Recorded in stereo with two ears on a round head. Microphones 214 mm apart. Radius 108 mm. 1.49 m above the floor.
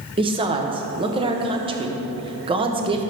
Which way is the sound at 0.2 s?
20° right (ahead or behind).